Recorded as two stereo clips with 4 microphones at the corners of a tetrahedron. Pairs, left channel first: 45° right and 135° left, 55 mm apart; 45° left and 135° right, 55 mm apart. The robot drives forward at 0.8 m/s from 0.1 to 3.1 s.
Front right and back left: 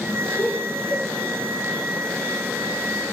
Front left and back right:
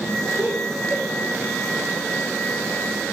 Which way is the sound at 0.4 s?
85° right.